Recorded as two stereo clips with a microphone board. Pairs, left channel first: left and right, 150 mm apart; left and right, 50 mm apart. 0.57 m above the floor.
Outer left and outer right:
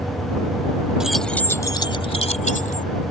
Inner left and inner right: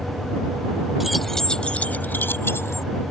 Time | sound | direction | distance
1.0 | keys jangling | 5° right (ahead or behind) | ?